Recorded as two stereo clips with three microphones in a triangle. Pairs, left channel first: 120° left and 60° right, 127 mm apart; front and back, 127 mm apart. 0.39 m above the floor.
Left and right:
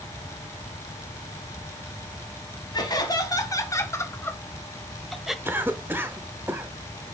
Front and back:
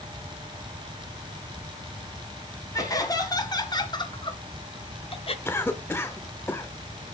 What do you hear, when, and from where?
2.7 s laughter: 60° left, 2.5 m; by 5.3 s 25° left, 1.3 m
5.5 s a cough: 25° right, 0.8 m